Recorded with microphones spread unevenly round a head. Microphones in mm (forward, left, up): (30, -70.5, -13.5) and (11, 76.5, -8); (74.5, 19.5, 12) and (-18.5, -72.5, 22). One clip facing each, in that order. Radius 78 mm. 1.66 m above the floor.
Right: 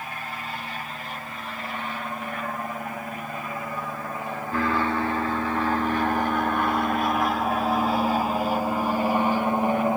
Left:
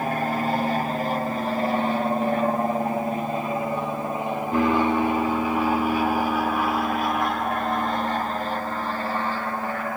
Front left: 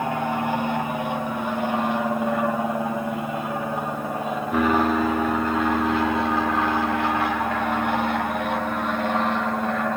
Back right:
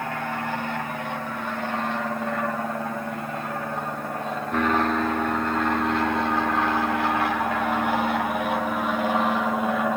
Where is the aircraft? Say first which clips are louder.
Left 11 dB, front left 5 dB; 110° left; by 10.0 s 60° right.